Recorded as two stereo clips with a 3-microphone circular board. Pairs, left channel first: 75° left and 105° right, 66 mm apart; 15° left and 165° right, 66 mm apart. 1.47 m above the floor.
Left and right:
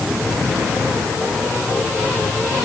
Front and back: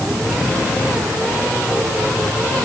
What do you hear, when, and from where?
Only background noise.